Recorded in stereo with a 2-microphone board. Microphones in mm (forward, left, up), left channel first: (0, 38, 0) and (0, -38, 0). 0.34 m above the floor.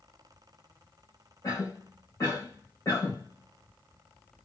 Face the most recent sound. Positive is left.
turn(degrees=35)  # may be behind; listen again after turning